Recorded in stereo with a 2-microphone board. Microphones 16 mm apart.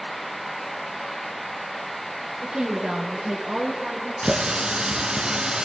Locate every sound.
2.4 s a woman speaking: 50° right (ahead or behind), 4.5 m; by 4.1 s 30° right (ahead or behind), 5.5 m
4.2 s a running tap: 65° right (ahead or behind), 2 m